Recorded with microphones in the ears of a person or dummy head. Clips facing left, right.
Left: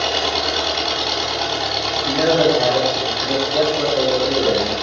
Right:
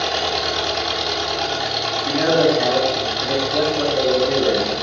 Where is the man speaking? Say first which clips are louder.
Left 1 dB; 30° right (ahead or behind), 2 m.